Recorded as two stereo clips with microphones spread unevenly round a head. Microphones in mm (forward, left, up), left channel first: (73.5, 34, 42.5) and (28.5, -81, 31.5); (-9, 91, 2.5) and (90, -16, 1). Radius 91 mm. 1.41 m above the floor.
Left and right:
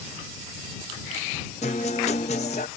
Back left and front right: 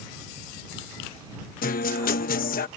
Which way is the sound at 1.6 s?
120° left.